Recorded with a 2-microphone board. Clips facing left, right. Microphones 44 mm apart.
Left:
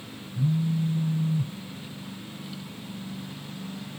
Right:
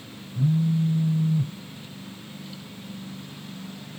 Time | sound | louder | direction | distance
0.3 | a phone buzzing | right 3 dB | 75° right (ahead or behind) | 0.6 m